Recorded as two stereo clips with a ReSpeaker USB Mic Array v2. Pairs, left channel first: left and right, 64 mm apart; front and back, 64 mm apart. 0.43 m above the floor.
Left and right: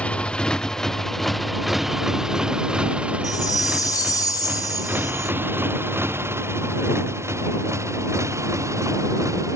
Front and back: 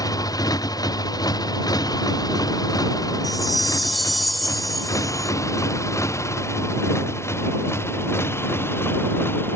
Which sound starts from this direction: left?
A chime, at 3.2 s.